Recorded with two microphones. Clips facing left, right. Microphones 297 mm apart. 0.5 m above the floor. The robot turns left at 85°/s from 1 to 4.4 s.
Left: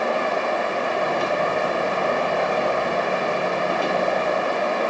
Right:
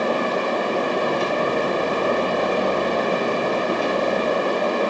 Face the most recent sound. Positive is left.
No sound to turn to.